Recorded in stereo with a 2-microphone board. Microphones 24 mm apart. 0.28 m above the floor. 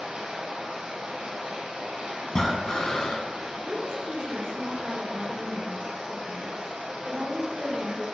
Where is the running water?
80° right, 2 m.